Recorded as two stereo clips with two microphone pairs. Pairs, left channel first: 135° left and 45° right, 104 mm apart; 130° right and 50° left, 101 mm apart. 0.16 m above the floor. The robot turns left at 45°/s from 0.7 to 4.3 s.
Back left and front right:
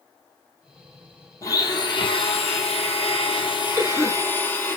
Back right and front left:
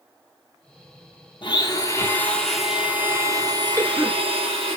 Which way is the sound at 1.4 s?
165° right.